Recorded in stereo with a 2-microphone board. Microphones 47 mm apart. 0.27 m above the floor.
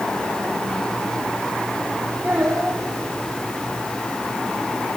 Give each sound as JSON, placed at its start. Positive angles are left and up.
{"t": 2.2, "sound": "a child speaking", "side_deg": -25, "distance_m": 7.5}